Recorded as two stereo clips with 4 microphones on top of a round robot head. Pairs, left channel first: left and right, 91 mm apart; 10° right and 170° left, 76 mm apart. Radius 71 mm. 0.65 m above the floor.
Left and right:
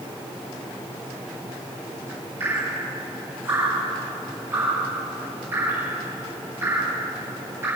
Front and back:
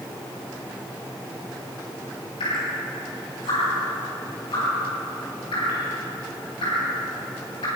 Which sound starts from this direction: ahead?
Dripping, at 2.4 s.